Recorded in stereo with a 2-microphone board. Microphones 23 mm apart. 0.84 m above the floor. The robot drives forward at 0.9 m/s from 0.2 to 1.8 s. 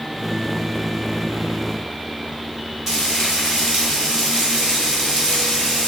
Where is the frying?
30° right (ahead or behind), 3 m.